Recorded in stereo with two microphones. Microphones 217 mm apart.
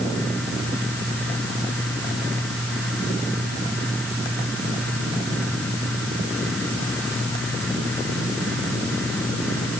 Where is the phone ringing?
No phone ringing in this recording.